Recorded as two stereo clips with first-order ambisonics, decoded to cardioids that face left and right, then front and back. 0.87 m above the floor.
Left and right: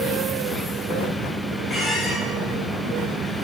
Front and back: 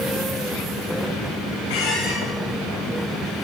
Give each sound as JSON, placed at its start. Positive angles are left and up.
{"t": 1.7, "sound": "a squeak", "azimuth_deg": 15, "distance_m": 4.0}